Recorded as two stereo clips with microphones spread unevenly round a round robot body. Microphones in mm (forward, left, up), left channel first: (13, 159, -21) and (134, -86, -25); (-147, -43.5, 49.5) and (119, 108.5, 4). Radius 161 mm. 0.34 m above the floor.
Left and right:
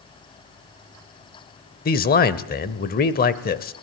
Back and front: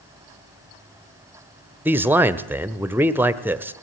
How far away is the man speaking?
About 1.1 m.